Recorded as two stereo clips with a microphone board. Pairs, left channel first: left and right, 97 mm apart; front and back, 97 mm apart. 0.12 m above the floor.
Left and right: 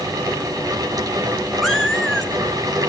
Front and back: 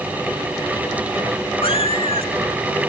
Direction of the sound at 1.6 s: Straight ahead.